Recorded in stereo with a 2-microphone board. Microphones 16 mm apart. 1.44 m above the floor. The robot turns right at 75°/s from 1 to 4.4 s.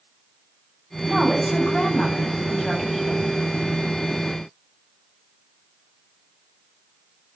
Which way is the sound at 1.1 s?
5° right.